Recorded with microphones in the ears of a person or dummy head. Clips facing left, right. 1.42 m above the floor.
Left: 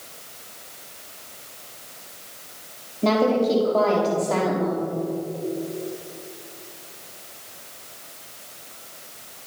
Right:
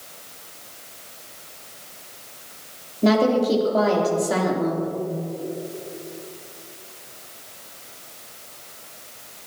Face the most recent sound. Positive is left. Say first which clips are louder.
# right 1 dB
turn(degrees=-15)  # may be behind; listen again after turning